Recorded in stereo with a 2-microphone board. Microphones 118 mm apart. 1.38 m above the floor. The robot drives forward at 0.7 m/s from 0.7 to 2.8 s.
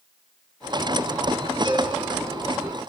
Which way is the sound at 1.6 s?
50° right (ahead or behind).